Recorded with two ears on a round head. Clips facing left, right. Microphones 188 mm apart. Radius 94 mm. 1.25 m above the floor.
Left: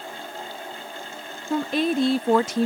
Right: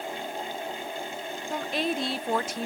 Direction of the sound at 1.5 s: 70° left (ahead or behind).